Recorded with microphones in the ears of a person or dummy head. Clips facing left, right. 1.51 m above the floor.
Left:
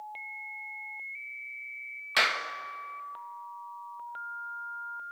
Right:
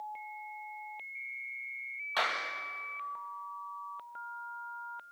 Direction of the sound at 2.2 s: 35° left (ahead or behind).